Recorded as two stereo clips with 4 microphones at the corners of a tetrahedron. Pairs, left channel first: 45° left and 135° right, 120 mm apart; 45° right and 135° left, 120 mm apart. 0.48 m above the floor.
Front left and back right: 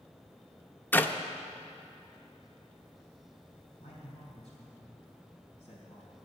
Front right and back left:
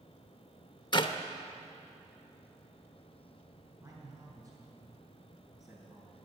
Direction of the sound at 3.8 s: 75° left.